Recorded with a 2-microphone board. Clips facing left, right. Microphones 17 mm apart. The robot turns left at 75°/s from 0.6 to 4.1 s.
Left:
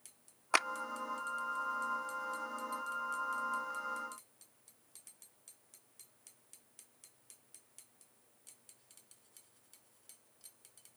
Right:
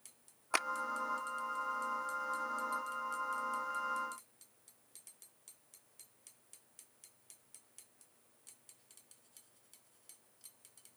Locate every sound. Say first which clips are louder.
0.5 s a clap: left 4 dB; 15° left (ahead or behind); by 0.7 s 20° left (ahead or behind)